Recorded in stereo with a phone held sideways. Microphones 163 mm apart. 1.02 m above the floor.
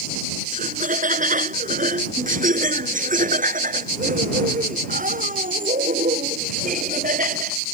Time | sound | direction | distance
0.5 | laughter | 55° right (ahead or behind) | ?